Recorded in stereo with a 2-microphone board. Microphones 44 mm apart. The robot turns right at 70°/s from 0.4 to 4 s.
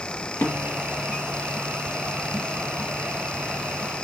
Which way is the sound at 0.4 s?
60° left (ahead or behind).